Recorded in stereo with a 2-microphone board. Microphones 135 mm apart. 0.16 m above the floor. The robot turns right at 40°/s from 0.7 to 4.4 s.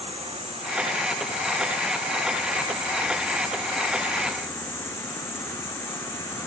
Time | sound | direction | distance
0.0 | an insect | 125° right | 3.5 m